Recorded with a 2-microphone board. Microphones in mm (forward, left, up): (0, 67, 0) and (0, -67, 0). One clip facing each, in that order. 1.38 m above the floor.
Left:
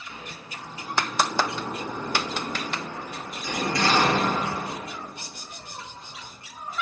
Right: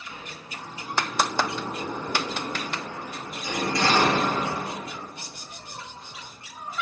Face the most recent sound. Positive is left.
turn(degrees=-25)  # may be behind; listen again after turning